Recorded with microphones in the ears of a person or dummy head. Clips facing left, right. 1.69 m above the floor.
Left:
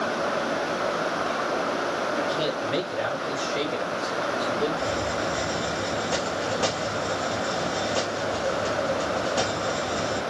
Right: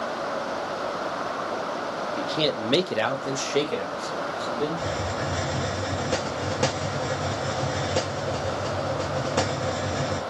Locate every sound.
2.2 s a man speaking: 15° right (ahead or behind), 0.6 m; by 4.9 s 50° right (ahead or behind), 1.6 m
4.8 s a hiss: 35° right (ahead or behind), 1.3 m